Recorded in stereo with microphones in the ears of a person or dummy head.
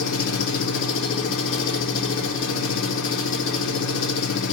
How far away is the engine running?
About 0.8 m.